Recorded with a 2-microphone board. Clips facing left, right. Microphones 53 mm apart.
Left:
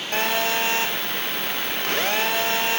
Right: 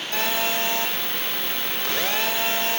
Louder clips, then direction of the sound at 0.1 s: Left 2 dB; 50° left (ahead or behind).